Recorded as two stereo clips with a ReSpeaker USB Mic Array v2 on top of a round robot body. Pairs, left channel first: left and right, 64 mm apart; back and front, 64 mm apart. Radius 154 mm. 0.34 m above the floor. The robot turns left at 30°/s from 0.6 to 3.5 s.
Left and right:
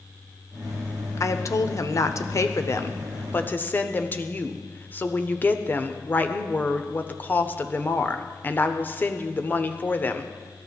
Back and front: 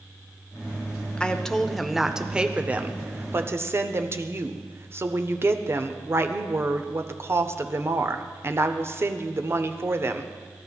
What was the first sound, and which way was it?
A woman speaking, 110° left.